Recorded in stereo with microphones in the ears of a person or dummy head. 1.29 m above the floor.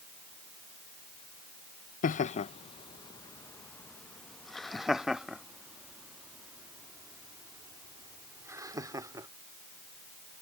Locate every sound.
2.0 s laughter: 45° left (ahead or behind); by 9.3 s 15° right (ahead or behind)